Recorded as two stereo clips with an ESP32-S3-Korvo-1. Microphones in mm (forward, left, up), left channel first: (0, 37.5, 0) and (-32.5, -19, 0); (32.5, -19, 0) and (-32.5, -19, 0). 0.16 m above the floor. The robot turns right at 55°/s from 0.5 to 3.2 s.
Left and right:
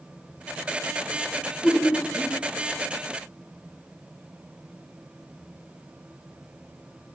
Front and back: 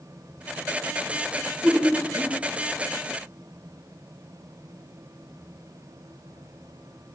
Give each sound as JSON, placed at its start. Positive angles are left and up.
{"t": 1.4, "sound": "laughter", "azimuth_deg": 100, "distance_m": 1.2}